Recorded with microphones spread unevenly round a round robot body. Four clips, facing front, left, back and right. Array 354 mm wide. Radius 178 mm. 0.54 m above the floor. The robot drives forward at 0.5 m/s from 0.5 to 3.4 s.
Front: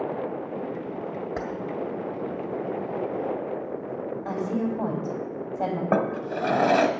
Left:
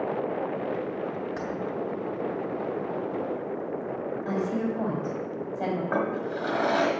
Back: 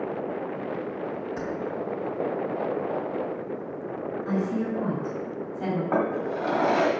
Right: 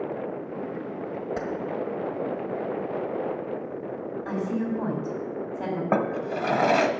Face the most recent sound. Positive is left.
turn(degrees=-40)